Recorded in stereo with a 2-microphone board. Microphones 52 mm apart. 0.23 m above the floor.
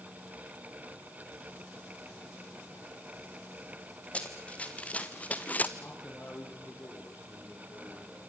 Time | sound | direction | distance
4.1 | running footsteps | 25° left (ahead or behind) | 3 m
5.8 | a man speaking | 45° left (ahead or behind) | 6.5 m